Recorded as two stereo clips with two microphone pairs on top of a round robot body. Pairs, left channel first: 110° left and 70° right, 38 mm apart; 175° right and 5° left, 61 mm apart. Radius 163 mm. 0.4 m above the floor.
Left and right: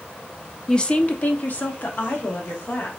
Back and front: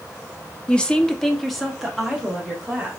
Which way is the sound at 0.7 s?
135° left.